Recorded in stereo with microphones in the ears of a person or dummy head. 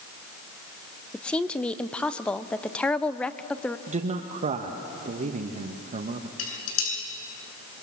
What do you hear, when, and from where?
1.1 s a woman speaking: 15° left (ahead or behind), 0.6 m
3.9 s a man speaking: 30° right (ahead or behind), 1.0 m
6.4 s dishes clattering: 70° left (ahead or behind), 10 m